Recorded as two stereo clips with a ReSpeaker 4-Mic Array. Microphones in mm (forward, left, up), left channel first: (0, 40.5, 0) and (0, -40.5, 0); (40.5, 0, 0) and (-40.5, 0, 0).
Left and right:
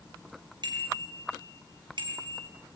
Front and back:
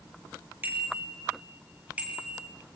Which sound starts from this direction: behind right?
A bicycle bell, at 0.6 s.